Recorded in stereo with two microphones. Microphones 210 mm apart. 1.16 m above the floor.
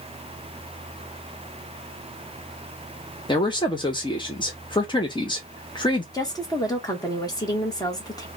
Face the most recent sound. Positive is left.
turn(degrees=20)  # may be behind; listen again after turning